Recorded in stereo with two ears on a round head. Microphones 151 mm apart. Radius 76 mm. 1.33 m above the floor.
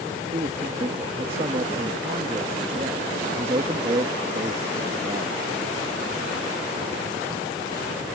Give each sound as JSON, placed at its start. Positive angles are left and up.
{"t": 0.3, "sound": "a man speaking", "side_deg": -35}